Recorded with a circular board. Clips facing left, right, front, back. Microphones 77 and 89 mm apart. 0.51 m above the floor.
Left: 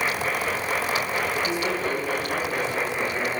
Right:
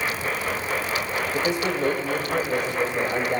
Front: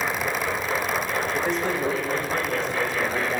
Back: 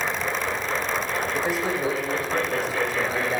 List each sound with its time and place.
1.3 s a man speaking: 95° right, 2.5 m